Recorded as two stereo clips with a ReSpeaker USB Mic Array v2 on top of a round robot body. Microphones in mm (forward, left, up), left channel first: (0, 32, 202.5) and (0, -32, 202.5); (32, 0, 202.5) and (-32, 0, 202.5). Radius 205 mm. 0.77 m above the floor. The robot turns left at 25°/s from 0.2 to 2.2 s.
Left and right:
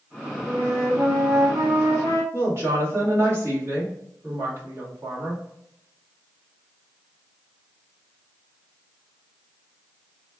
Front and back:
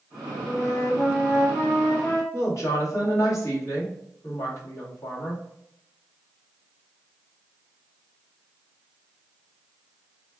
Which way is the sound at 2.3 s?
40° right.